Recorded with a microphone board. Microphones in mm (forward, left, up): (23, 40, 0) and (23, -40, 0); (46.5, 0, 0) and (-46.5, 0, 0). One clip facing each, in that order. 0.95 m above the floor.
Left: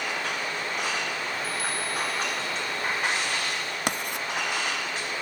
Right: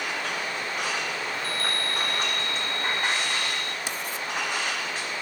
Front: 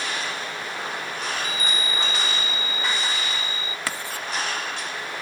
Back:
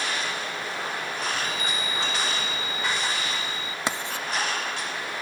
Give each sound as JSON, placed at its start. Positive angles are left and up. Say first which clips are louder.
{"t": 1.3, "sound": "a chime", "louder": "even, front 1 dB", "azimuth_deg": 175, "distance_m": 0.6}
{"t": 3.9, "sound": "writing", "louder": "left 3 dB, back 3 dB", "azimuth_deg": 110, "distance_m": 1.1}